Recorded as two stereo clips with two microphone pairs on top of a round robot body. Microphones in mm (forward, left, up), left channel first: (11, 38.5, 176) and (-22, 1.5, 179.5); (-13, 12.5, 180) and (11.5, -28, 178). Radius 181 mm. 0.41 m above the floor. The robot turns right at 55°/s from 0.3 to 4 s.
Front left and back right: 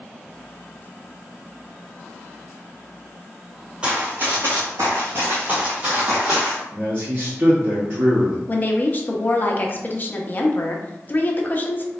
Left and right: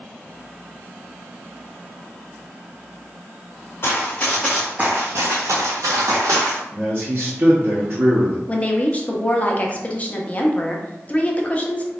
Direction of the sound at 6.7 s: 90° right.